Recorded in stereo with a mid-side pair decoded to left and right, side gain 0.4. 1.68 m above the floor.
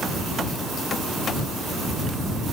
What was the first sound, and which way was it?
Only background noise.